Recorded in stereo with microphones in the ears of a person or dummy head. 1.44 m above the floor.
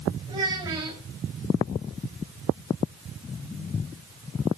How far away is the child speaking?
About 4.5 m.